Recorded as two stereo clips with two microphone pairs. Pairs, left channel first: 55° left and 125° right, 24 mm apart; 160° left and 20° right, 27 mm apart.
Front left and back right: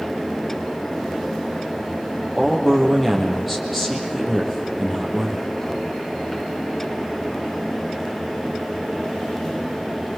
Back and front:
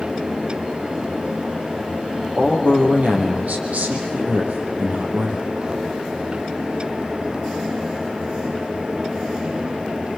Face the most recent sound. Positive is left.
turn(degrees=-35)